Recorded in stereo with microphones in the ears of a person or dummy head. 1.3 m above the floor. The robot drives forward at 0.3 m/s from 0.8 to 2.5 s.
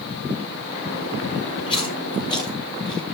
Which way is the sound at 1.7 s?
30° left (ahead or behind).